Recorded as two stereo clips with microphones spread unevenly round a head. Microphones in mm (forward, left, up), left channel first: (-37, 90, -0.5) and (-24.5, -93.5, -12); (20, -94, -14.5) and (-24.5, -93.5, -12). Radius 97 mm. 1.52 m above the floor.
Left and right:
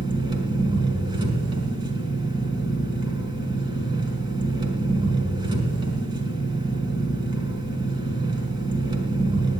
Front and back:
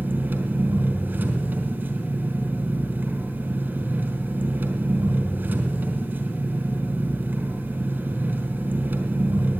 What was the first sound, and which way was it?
An engine running, 145° right.